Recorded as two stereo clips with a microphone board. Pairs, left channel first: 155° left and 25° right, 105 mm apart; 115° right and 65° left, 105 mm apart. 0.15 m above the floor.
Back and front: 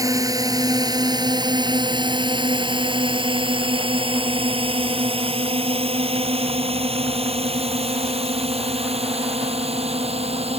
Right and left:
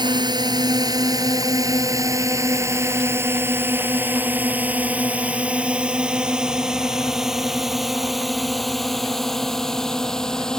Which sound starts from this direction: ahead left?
A drone, at 0.0 s.